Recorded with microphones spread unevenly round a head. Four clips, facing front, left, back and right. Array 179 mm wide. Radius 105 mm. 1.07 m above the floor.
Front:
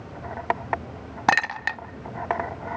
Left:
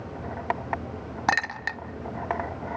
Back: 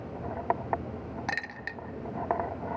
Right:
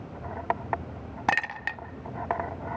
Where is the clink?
Straight ahead, 0.5 m.